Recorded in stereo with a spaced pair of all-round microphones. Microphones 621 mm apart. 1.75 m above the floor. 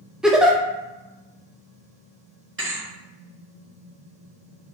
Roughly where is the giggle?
Centre.